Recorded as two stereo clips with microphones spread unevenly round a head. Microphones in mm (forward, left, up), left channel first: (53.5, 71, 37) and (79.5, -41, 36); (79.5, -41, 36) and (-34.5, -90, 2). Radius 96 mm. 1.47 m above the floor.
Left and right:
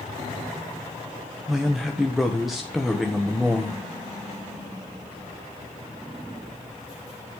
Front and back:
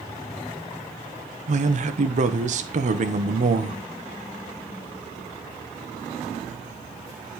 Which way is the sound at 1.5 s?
165° right.